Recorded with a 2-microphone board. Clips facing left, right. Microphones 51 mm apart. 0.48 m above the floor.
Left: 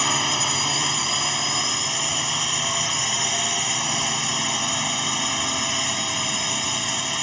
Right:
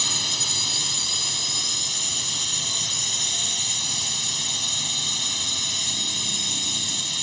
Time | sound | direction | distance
0.0 | a drone | 40° left (ahead or behind) | ?